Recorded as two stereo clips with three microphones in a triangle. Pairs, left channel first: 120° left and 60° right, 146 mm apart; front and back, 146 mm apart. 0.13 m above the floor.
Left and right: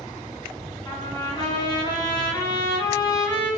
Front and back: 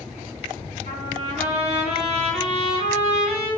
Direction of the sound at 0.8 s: 170° left.